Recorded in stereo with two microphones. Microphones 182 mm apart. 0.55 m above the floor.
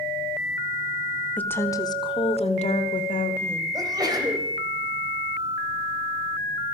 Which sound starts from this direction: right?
A sneeze, at 3.7 s.